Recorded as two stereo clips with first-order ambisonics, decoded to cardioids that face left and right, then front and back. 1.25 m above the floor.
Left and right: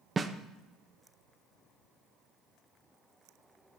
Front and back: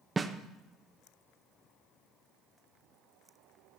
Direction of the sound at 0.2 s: 130° right.